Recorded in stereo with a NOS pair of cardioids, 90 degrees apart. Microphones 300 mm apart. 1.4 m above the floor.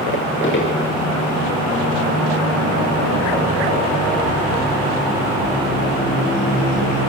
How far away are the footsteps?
About 8 m.